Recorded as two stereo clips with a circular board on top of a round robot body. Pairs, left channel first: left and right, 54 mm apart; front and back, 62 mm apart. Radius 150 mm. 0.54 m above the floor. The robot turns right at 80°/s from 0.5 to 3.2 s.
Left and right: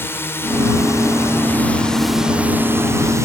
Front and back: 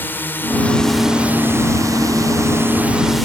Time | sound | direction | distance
0.0 | a drone | 55° left | ?